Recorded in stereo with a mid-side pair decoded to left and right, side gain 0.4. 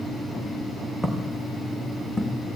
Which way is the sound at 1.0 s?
10° right.